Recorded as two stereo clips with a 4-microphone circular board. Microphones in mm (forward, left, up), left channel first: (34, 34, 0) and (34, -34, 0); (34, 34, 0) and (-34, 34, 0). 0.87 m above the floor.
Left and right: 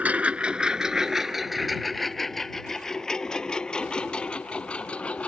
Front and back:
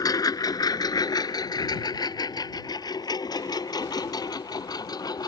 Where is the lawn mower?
20° right; by 5.3 s 15° left.